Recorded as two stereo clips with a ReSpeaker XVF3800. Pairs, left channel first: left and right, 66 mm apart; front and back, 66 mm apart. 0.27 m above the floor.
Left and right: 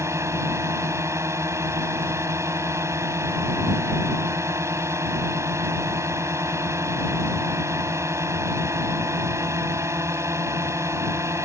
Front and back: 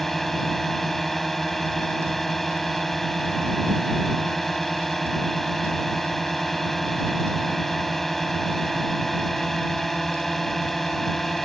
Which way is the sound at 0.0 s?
85° right.